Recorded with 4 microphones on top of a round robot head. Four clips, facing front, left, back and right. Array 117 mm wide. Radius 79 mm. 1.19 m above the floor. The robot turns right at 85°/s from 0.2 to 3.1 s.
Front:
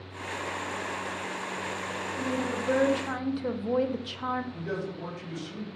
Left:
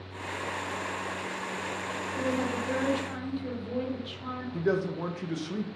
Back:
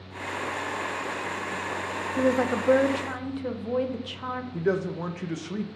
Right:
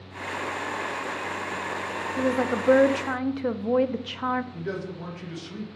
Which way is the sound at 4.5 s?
145° left.